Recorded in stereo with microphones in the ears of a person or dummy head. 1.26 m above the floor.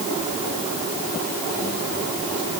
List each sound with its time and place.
Only background noise.